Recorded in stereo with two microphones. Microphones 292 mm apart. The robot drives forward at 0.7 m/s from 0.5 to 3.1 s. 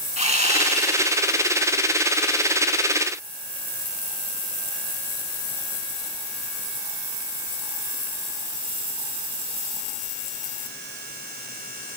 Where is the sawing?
25° right (ahead or behind), 2 m; by 1.8 s 30° right (ahead or behind), 1.6 m.